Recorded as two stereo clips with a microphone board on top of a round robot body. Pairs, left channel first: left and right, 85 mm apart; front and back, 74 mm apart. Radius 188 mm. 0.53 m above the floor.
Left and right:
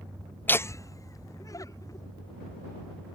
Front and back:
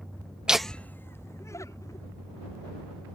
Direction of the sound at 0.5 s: 115° left.